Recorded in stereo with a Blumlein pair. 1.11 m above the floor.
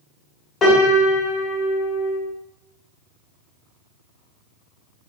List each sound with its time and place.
0.6 s a piano: 20° left, 1.7 m